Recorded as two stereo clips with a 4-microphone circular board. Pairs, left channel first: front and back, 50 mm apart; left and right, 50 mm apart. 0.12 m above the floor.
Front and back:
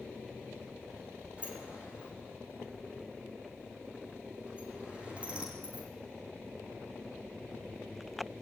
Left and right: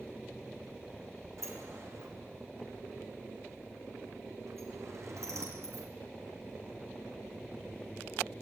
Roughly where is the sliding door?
Behind right.